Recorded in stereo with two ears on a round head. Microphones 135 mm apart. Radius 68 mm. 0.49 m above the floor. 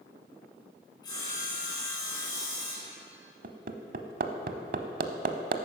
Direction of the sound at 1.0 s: 25° left (ahead or behind).